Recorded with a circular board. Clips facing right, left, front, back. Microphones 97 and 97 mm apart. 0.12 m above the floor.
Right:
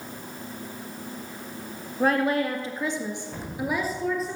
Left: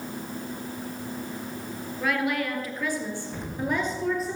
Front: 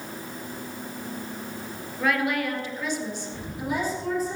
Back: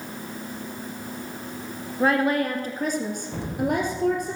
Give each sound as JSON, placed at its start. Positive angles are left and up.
{"t": 2.0, "sound": "a woman speaking", "azimuth_deg": -130, "distance_m": 2.0}
{"t": 3.3, "sound": "an explosion", "azimuth_deg": 180, "distance_m": 3.0}